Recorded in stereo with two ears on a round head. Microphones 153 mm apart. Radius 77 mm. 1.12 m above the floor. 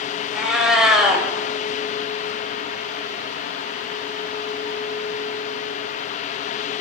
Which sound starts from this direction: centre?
A cat meowing, at 0.3 s.